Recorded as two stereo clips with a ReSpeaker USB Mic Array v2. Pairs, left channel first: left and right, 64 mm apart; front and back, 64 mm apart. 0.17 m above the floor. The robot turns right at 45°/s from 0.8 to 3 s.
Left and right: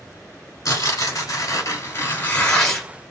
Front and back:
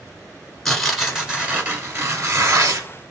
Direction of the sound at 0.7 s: 85° left.